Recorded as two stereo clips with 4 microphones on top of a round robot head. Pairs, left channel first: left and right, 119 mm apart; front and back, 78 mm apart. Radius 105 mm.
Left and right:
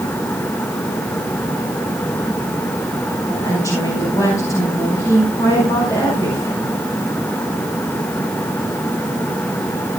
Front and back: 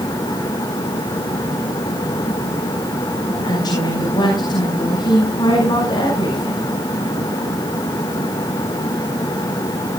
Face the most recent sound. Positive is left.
turn(degrees=25)